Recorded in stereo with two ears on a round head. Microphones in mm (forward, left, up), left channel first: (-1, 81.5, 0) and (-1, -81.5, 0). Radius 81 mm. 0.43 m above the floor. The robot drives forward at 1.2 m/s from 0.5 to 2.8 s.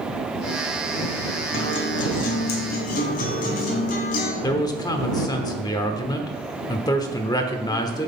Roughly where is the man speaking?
Left.